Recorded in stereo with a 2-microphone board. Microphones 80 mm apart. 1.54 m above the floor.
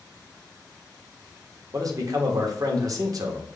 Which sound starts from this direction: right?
A man speaking, at 1.7 s.